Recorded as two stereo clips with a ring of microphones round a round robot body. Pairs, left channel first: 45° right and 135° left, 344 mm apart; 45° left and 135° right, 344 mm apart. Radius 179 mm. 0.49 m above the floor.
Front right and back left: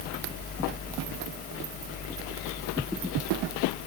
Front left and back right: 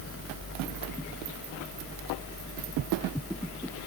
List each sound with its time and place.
Only background noise.